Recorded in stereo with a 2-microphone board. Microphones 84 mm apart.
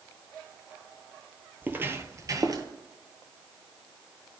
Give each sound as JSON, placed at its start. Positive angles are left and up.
{"t": 1.6, "sound": "footsteps", "side_deg": -20, "distance_m": 0.8}